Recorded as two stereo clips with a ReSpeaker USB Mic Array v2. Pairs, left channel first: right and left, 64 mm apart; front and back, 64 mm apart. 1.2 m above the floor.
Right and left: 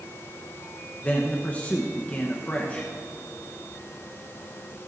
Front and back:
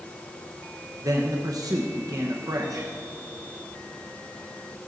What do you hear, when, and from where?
1.0 s a man speaking: 155° right, 1.0 m